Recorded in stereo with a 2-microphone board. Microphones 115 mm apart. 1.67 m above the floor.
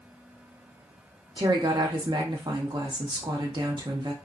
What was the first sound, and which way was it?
A woman speaking, 40° right (ahead or behind).